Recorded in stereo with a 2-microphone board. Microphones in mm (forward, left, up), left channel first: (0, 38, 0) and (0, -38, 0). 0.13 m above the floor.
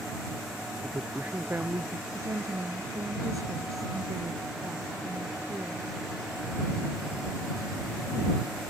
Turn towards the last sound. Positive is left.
turn(degrees=-45)  # may be behind; listen again after turning